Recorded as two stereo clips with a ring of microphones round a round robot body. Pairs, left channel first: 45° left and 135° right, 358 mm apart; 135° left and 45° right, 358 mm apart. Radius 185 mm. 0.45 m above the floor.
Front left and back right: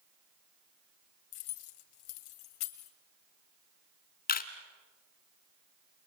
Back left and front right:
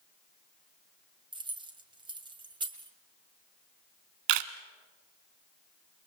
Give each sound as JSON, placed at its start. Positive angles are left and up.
{"t": 1.3, "sound": "keys jangling", "azimuth_deg": 30, "distance_m": 2.0}
{"t": 4.3, "sound": "a camera shutter", "azimuth_deg": -20, "distance_m": 1.3}